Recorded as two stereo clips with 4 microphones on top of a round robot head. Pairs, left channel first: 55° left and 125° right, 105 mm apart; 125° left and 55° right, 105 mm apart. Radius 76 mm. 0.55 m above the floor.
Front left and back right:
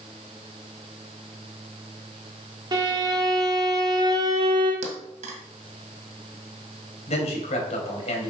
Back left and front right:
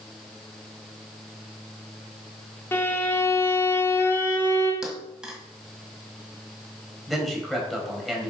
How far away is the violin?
About 2 m.